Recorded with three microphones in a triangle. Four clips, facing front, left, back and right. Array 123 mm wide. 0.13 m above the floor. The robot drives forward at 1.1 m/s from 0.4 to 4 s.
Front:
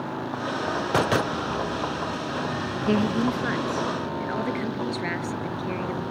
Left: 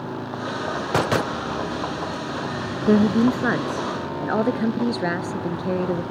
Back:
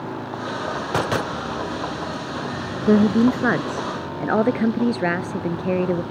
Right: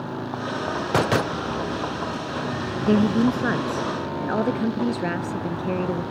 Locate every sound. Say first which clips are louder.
2.9 s a woman speaking: left 2 dB, back 8 dB; 155° left; by 6.0 s 170° left